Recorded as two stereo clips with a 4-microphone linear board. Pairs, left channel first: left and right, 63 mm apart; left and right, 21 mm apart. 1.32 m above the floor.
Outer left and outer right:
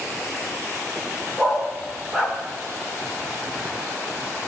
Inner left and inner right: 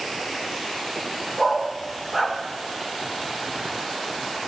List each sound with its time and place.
1.4 s a dog barking: 15° right (ahead or behind), 1.7 m